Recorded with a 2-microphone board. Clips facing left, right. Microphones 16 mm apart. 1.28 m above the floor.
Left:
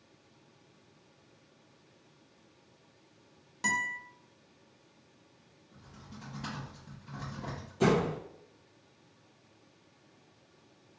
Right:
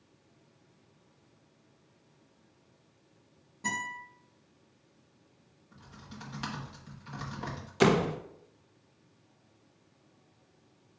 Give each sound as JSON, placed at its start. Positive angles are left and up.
{"t": 3.6, "sound": "a guitar", "side_deg": 65, "distance_m": 1.2}
{"t": 5.7, "sound": "typing on a keyboard", "side_deg": -75, "distance_m": 1.3}
{"t": 7.8, "sound": "a door slam", "side_deg": -60, "distance_m": 0.5}